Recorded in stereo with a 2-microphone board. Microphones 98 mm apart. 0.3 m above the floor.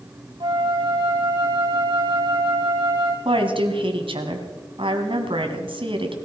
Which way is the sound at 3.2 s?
65° right (ahead or behind).